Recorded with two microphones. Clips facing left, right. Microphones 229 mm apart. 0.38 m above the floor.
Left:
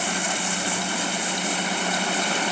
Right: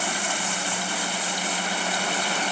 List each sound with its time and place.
Only background noise.